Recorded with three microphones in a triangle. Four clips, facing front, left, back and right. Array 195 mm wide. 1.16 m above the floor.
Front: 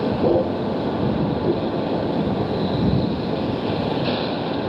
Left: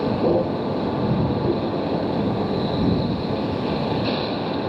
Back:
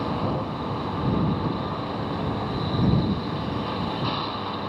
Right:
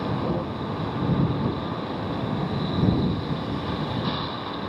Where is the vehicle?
35° left.